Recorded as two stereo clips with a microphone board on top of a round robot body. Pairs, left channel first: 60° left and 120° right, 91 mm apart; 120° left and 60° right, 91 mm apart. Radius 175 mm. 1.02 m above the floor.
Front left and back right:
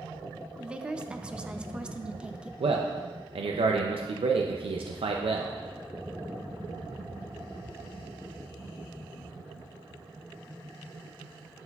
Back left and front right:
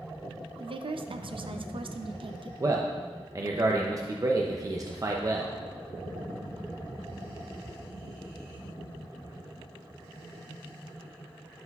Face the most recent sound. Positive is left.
turn(degrees=-115)